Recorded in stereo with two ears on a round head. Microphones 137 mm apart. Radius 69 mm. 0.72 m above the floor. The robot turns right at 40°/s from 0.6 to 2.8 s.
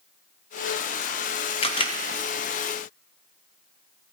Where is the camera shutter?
40° left (ahead or behind), 0.8 m; by 2.0 s 30° left (ahead or behind), 0.8 m.